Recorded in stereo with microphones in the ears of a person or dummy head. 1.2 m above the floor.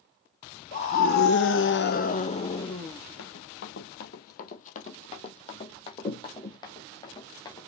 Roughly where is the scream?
Left.